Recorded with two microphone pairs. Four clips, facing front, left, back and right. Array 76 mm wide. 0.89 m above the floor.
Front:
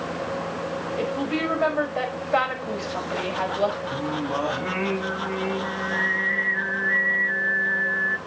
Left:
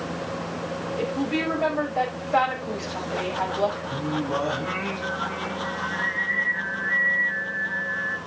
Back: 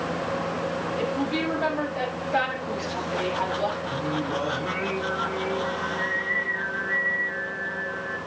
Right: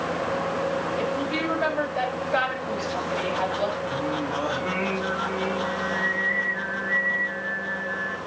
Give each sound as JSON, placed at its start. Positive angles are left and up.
{"t": 1.0, "sound": "a woman speaking", "azimuth_deg": 20, "distance_m": 5.0}
{"t": 3.9, "sound": "singing", "azimuth_deg": 15, "distance_m": 3.5}